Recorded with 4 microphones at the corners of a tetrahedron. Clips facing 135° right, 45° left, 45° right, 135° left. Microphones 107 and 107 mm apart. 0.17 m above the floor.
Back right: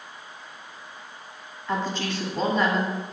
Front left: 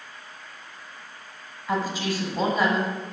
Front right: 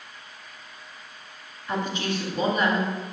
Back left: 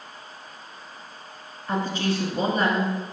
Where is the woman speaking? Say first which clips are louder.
Front left 1 dB, back left 2 dB; 120° left, 1.3 m.